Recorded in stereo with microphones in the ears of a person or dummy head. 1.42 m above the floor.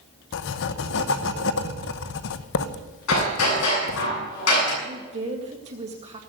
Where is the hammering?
85° left, 7.5 m.